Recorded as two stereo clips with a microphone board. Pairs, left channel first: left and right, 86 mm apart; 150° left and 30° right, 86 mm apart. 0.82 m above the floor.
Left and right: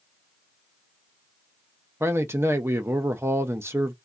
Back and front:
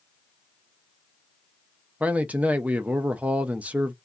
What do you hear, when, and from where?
2.0 s a man speaking: 85° right, 0.6 m